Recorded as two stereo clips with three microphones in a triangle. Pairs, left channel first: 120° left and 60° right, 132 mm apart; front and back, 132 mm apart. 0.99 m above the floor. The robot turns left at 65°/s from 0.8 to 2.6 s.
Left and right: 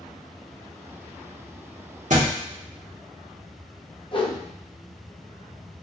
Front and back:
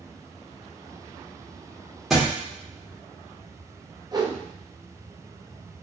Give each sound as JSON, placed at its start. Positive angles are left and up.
{"t": 2.1, "sound": "a thud", "azimuth_deg": -90, "distance_m": 1.2}
{"t": 4.1, "sound": "a whoosh", "azimuth_deg": 135, "distance_m": 0.6}